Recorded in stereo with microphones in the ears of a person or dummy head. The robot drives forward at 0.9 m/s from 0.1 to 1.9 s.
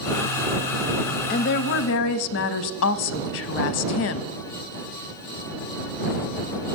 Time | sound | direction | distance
1.3 | a woman speaking | 40° left (ahead or behind) | 0.6 m